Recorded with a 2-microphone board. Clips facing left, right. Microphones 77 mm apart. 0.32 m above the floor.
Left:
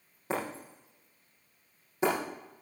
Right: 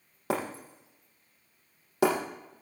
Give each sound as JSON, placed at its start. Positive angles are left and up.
{"t": 0.3, "sound": "breaking glass", "side_deg": -85, "distance_m": 5.5}